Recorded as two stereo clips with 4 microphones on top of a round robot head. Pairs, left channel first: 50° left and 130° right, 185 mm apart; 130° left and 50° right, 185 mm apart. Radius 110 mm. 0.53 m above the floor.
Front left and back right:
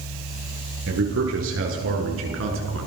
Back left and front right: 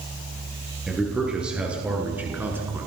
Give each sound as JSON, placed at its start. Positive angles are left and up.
{"t": 0.9, "sound": "a man speaking", "azimuth_deg": -135, "distance_m": 9.5}